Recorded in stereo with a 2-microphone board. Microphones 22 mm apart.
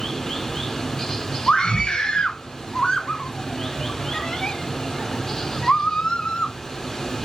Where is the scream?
40° left (ahead or behind), 1.7 m.